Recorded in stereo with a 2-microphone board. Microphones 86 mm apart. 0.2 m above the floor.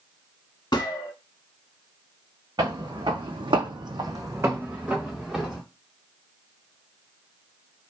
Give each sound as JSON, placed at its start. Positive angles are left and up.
{"t": 0.7, "sound": "a gunshot", "side_deg": 55, "distance_m": 0.5}
{"t": 2.6, "sound": "footsteps", "side_deg": -60, "distance_m": 0.9}